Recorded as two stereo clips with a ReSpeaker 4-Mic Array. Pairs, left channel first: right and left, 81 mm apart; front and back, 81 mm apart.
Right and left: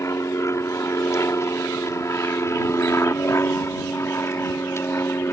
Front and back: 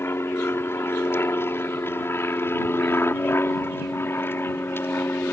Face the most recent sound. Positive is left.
turn(degrees=-50)